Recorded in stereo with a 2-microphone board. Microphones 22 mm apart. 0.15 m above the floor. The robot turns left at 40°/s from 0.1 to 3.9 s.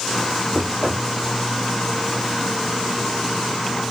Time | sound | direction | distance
0.5 | knocking | 25° right (ahead or behind) | 3 m